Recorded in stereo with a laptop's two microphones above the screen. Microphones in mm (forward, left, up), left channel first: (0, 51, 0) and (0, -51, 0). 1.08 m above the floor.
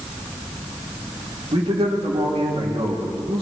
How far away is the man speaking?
About 2.5 m.